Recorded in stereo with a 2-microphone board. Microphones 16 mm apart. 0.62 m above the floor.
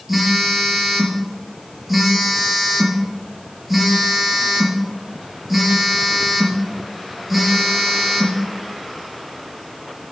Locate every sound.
0.1 s a phone buzzing: 15° right (ahead or behind), 4 m